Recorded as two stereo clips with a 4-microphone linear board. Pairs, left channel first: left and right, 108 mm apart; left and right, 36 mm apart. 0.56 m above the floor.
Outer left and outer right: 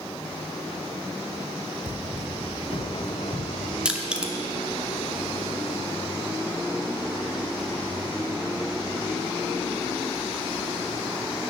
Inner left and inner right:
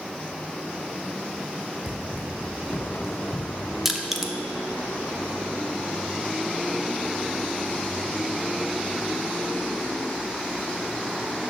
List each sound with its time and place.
1.9 s running footsteps: 55° right (ahead or behind), 2 m; by 3.8 s 5° left (ahead or behind), 1.5 m
3.9 s crushing: 10° right (ahead or behind), 0.7 m